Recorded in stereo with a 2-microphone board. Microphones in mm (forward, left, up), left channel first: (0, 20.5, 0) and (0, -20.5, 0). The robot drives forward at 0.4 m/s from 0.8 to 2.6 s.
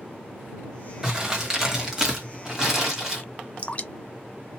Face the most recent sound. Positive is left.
turn(degrees=30)  # may be behind; listen again after turning